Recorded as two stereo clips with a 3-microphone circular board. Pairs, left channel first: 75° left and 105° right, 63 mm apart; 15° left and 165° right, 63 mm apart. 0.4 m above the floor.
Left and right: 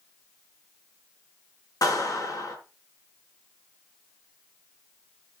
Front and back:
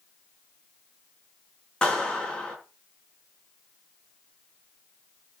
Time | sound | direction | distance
1.8 | a clap | 90° left | 5 m